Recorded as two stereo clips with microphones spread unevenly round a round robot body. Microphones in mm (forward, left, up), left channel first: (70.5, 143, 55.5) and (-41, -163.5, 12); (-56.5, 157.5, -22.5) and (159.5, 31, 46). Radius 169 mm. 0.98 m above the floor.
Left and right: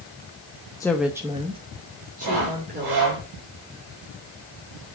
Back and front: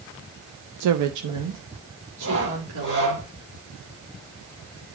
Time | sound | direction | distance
0.8 | a woman speaking | 10° right | 0.6 m
2.2 | sawing | 85° right | 5.5 m